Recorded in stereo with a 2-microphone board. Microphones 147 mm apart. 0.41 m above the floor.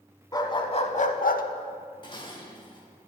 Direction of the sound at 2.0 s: 35° left (ahead or behind).